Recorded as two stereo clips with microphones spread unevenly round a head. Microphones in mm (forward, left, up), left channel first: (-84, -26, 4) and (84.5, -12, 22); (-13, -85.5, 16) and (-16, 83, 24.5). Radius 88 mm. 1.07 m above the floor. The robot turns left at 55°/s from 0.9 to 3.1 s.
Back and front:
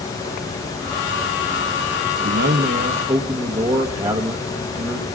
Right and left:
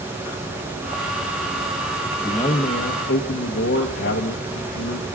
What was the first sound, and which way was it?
A man speaking, 15° right.